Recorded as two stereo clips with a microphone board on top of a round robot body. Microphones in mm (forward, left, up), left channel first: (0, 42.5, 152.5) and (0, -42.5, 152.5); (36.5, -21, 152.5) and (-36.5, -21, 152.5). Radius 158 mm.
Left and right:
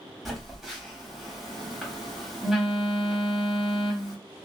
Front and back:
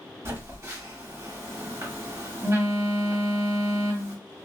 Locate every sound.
0.2 s a phone buzzing: straight behind, 1.4 m